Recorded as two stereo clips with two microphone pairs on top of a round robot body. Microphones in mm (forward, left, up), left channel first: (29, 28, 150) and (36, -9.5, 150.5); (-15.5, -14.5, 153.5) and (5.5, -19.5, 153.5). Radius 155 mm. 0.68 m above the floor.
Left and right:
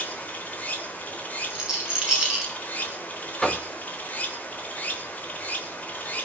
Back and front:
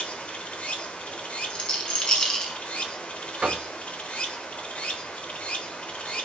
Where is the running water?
150° left, 3 m.